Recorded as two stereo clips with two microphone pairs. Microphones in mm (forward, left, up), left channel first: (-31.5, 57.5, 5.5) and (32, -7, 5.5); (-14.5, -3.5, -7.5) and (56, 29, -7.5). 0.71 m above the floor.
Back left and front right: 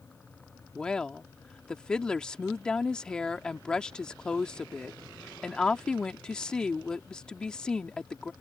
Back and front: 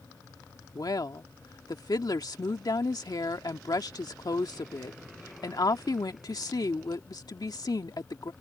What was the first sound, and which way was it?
A woman speaking, 145° right.